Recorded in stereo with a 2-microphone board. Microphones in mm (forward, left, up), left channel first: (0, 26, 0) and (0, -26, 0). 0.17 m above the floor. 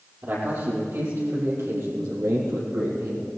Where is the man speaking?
50° right (ahead or behind), 7 m; by 3.3 s 75° right (ahead or behind), 6.5 m.